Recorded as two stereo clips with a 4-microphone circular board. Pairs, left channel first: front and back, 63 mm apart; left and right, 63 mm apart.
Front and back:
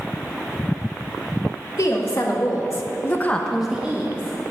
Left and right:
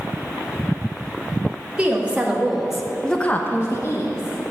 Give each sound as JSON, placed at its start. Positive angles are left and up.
{"t": 1.8, "sound": "a woman speaking", "azimuth_deg": -20, "distance_m": 2.5}